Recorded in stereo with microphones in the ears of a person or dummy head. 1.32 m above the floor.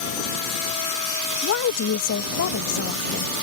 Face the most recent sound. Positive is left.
turn(degrees=70)  # may be behind; listen again after turning